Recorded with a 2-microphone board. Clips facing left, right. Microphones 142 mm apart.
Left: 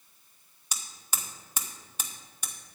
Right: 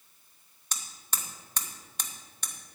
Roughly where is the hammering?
Centre.